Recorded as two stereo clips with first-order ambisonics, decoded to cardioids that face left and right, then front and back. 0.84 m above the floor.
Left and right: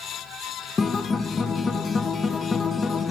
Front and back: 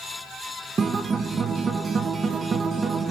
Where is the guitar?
140° left, 0.6 m.